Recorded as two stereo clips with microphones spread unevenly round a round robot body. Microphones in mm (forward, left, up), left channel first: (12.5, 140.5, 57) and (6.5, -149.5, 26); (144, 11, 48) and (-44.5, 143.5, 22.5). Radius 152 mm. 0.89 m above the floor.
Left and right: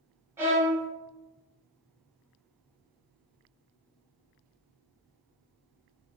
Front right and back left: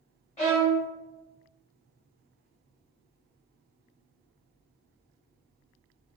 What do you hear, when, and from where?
0.4 s a violin: 5° right, 0.8 m